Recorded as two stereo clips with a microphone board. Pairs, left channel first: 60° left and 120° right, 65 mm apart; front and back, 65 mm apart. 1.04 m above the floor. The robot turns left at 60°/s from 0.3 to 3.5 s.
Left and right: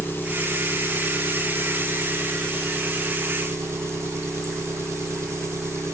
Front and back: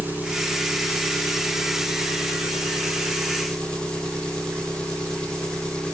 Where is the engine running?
115° left, 0.8 m; by 5.9 s 75° right, 0.8 m.